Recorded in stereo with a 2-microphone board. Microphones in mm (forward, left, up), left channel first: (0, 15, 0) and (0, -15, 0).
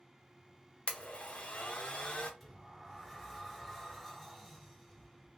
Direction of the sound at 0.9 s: 40° left (ahead or behind).